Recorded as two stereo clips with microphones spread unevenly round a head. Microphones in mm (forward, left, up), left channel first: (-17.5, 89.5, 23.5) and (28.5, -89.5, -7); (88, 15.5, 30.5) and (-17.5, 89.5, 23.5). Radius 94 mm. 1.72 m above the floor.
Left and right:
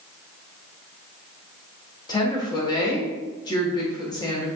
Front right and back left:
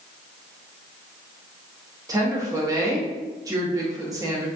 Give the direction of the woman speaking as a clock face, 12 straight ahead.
8 o'clock.